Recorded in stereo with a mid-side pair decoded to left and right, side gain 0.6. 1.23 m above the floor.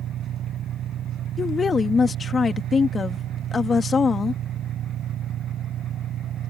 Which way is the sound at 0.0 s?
50° right.